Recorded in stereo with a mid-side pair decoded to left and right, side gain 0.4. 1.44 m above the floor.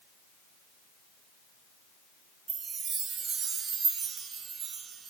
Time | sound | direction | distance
2.5 | a chime | 70° right | 1.9 m